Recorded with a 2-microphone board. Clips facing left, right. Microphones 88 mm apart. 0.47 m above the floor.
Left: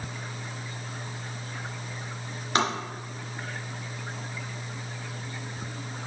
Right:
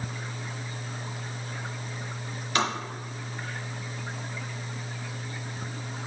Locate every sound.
2.5 s tapping: 35° left (ahead or behind), 2.5 m